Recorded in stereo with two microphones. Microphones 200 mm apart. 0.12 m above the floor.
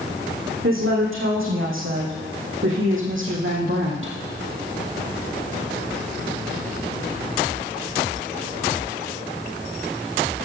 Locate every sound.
0.6 s a woman speaking: 80° right, 6 m; by 4.2 s 75° right (ahead or behind), 3.5 m